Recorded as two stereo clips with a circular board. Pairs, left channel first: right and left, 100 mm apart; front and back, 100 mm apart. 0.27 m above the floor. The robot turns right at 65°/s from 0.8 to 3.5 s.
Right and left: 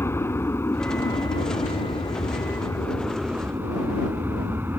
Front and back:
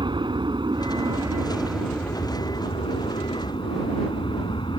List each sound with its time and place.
0.0 s an aircraft: 150° right; by 4.8 s 25° left